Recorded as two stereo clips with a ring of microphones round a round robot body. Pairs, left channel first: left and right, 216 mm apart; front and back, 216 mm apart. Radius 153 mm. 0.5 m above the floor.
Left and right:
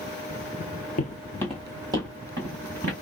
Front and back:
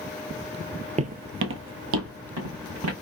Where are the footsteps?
130° left, 0.6 m; by 2.9 s 155° right, 1.8 m.